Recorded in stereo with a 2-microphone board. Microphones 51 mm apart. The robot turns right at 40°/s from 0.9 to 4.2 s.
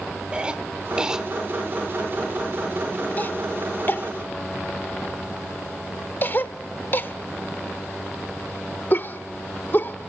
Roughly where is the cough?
Right.